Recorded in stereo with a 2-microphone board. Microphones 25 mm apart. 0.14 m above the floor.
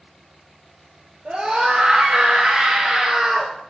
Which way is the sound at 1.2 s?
55° right (ahead or behind).